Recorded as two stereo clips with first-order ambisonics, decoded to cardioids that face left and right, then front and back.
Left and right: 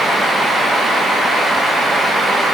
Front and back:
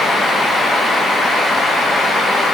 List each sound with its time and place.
Only background noise.